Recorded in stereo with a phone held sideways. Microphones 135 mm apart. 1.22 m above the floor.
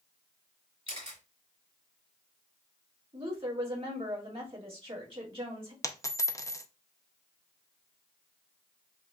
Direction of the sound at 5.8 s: 20° left (ahead or behind).